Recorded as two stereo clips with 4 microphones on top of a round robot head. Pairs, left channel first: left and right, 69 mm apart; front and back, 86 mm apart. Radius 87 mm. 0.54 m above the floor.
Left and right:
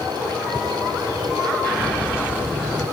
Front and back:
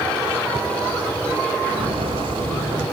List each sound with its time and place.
1.6 s footsteps: 155° left, 7.5 m